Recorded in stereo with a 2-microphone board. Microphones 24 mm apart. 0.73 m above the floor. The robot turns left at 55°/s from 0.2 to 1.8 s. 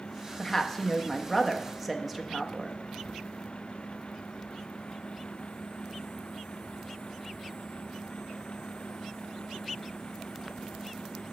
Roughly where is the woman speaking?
Centre.